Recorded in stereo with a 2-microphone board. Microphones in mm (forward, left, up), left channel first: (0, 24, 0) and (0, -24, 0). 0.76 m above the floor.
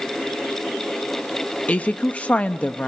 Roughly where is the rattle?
No rattle in this recording.